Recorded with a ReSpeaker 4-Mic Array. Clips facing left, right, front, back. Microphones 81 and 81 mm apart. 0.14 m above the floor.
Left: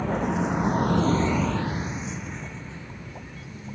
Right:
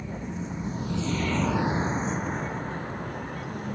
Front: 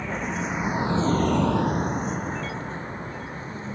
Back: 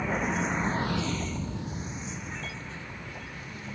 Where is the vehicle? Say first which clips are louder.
Left 10 dB, even; 95° left; by 3.8 s 55° right.